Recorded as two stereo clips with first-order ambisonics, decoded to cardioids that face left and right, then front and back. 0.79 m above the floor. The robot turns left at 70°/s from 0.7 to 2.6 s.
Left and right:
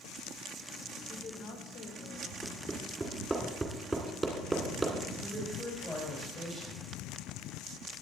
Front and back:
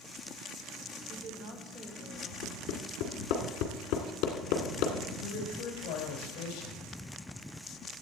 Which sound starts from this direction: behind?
A woman speaking, at 1.1 s.